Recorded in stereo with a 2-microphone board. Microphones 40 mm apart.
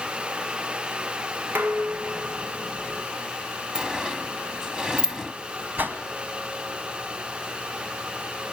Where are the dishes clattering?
60° right (ahead or behind), 1.3 m.